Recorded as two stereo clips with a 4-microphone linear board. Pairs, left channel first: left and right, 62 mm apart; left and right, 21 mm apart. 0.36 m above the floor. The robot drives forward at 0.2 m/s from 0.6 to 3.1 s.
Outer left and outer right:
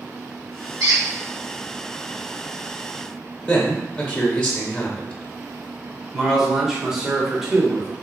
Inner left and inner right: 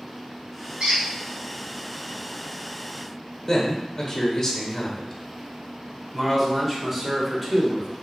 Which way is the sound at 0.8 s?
60° right (ahead or behind).